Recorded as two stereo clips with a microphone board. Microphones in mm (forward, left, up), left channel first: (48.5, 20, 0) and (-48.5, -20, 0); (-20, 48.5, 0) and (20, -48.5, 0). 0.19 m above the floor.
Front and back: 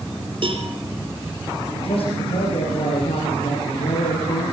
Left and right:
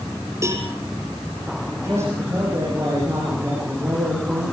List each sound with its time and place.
0.4 s a cowbell: 125° right, 4 m
1.7 s a man speaking: 5° right, 8.5 m